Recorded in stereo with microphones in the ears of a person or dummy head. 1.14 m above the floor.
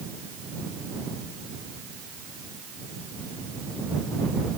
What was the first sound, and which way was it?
Only background noise.